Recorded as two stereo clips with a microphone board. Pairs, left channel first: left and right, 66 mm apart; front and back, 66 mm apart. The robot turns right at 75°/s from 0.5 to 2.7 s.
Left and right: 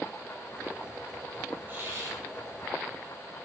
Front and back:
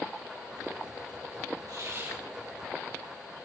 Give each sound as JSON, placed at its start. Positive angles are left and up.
{"t": 1.7, "sound": "a hiss", "azimuth_deg": -155, "distance_m": 4.0}